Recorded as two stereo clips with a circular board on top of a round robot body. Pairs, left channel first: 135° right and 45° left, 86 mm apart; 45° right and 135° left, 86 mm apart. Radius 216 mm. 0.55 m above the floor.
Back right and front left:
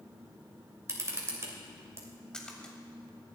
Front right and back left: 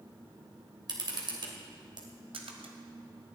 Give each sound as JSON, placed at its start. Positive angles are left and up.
{"t": 0.9, "sound": "a camera shutter", "azimuth_deg": 105, "distance_m": 3.0}
{"t": 2.3, "sound": "a splash", "azimuth_deg": 145, "distance_m": 1.5}